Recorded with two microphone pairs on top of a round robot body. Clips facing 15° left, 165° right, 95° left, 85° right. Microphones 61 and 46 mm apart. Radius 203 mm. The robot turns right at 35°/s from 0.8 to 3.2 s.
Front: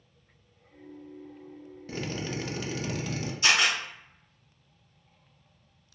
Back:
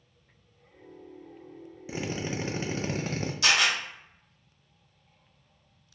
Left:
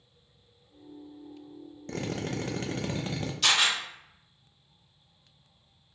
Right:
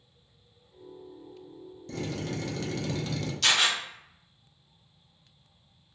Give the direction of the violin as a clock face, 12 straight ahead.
I don't hear a violin.